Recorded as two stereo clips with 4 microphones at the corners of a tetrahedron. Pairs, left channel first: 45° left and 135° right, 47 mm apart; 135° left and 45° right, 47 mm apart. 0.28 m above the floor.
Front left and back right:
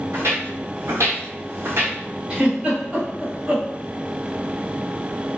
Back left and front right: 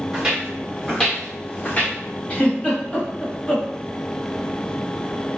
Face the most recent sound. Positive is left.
turn(degrees=175)